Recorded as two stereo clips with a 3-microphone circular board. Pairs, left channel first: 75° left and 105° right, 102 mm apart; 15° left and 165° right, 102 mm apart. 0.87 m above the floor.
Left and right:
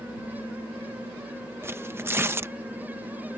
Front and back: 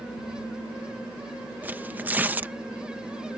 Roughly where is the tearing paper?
Behind right.